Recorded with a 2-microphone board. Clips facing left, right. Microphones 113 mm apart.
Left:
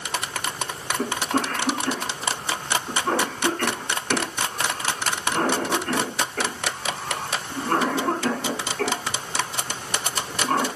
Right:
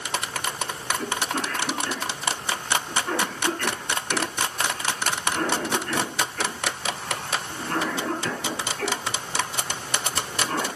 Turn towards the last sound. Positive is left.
turn(degrees=70)  # may be behind; listen again after turning